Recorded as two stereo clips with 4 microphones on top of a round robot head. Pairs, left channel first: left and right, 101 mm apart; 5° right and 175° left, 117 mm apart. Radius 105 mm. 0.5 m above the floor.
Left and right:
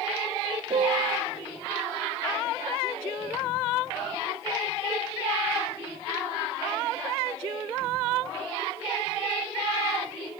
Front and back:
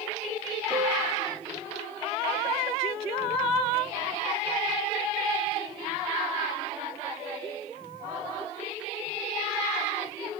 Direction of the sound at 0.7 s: 120° right.